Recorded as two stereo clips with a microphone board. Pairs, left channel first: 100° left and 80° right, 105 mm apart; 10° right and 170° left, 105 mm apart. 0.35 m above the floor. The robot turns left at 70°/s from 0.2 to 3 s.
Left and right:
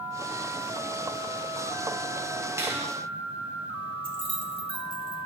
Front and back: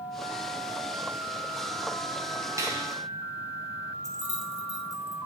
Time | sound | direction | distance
2.6 | a finger snap | 135° right | 2 m
4.0 | keys jangling | 60° right | 1.2 m